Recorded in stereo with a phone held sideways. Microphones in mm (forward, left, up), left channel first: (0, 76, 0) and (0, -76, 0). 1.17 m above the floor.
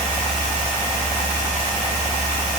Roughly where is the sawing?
I don't hear sawing.